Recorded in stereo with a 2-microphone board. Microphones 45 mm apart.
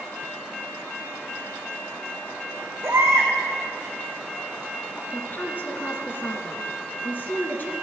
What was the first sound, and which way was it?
A baby crying, 55° right (ahead or behind).